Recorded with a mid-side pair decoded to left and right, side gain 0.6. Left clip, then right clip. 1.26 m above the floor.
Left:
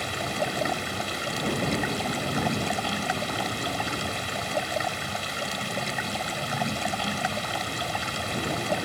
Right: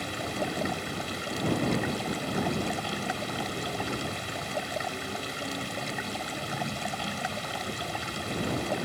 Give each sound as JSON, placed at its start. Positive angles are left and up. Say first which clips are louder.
{"t": 0.0, "sound": "running water", "louder": "left 4 dB", "azimuth_deg": 25}